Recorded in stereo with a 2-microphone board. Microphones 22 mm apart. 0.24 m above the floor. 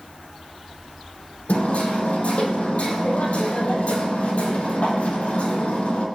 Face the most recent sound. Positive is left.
turn(degrees=75)  # may be behind; listen again after turning